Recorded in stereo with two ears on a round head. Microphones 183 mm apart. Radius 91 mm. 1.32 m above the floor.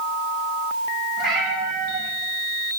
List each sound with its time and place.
1.2 s a cat meowing: centre (ahead or behind), 5.5 m